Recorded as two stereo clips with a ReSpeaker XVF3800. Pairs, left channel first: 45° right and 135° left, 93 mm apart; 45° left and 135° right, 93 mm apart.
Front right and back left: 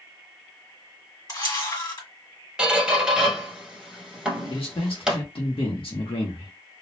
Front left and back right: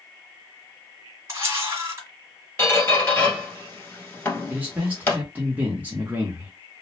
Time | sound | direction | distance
1.3 | a camera shutter | 85° right | 1.5 m
2.6 | a squeak | 65° left | 1.2 m
4.5 | a man speaking | 60° right | 0.8 m